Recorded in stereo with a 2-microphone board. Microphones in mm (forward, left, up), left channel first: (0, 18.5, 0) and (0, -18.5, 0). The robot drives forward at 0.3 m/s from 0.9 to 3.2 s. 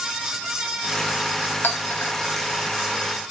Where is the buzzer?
I don't hear a buzzer.